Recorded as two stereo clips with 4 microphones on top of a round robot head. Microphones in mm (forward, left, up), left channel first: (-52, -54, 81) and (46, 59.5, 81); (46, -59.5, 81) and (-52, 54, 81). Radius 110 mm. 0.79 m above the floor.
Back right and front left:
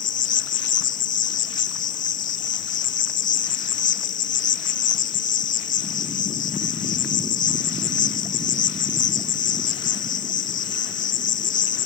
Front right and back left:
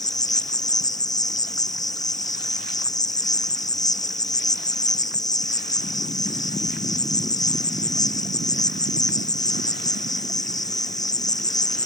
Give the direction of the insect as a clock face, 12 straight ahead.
4 o'clock.